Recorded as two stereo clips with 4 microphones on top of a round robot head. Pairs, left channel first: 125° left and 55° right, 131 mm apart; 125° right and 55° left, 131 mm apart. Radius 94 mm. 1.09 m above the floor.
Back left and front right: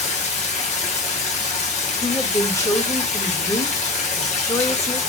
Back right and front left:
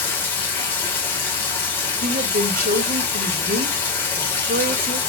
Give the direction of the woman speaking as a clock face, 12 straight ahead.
10 o'clock.